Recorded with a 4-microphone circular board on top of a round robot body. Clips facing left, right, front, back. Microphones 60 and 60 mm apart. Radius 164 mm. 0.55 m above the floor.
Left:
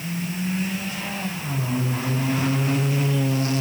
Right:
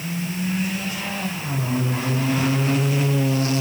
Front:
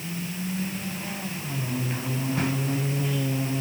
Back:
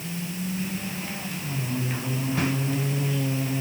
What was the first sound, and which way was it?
Only background noise.